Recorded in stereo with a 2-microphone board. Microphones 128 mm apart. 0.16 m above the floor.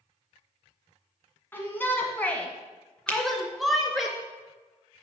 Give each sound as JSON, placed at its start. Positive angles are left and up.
{"t": 1.5, "sound": "a shout", "side_deg": 15, "distance_m": 1.7}
{"t": 3.1, "sound": "a finger snap", "side_deg": 15, "distance_m": 1.5}